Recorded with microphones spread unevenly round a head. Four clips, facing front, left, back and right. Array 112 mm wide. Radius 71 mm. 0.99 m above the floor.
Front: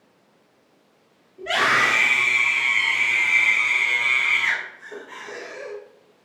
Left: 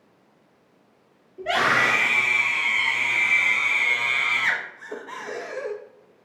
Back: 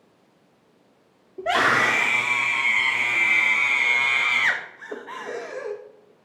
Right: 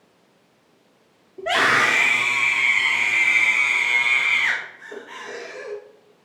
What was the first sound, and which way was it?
A scream, 160° right.